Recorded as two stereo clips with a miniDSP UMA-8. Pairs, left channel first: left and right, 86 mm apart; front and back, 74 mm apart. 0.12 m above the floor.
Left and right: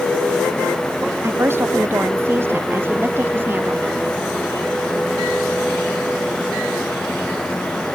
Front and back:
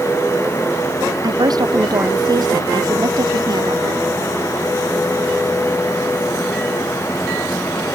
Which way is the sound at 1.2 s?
150° right.